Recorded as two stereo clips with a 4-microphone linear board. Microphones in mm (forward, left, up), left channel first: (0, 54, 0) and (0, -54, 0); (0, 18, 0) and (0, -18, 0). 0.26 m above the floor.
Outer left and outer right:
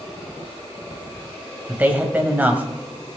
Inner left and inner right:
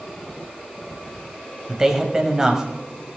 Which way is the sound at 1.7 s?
15° right (ahead or behind).